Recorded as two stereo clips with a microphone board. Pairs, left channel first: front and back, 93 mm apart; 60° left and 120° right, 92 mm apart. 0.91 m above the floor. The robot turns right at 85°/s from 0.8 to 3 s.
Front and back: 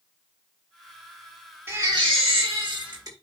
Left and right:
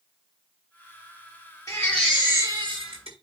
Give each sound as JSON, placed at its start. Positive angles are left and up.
{"t": 1.7, "sound": "a baby crying", "azimuth_deg": 115, "distance_m": 5.0}